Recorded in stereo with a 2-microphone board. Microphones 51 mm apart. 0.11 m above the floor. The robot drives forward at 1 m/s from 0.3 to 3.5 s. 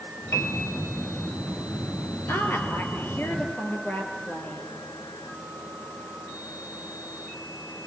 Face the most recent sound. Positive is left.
turn(degrees=40)  # may be behind; listen again after turning